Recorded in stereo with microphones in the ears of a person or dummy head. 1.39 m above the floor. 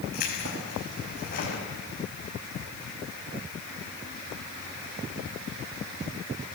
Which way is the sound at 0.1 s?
55° left (ahead or behind).